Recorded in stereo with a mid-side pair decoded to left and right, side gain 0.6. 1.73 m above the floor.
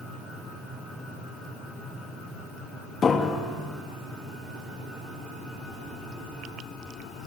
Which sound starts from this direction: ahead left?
A piano, at 3.0 s.